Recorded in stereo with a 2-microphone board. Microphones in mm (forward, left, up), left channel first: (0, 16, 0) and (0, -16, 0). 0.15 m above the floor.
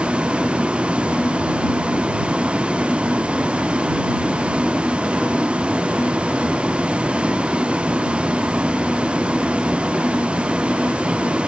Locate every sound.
0.0 s a vehicle: 35° right (ahead or behind)